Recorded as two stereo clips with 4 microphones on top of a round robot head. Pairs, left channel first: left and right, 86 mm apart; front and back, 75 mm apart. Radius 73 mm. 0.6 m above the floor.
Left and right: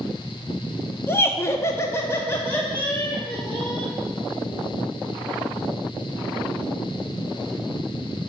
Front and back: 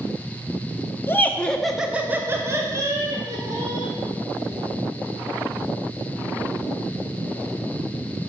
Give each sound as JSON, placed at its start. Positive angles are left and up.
{"t": 1.1, "sound": "laughter", "azimuth_deg": 45, "distance_m": 0.8}